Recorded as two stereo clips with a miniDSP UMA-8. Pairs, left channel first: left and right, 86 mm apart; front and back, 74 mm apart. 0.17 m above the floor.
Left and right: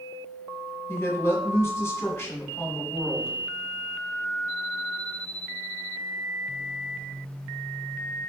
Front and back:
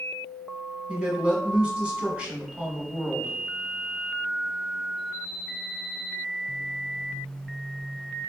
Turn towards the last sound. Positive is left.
turn(degrees=115)